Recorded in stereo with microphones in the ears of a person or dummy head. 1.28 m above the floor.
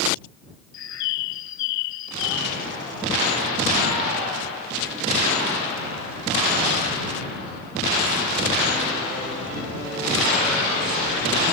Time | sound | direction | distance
0.7 | a bird | 60° left (ahead or behind) | ?